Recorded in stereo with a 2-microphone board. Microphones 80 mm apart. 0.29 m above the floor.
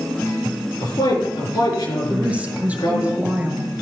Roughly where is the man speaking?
Left.